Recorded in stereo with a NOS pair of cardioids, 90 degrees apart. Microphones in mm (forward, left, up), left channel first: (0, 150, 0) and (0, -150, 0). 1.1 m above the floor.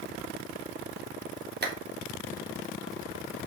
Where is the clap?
35° right, 2.5 m.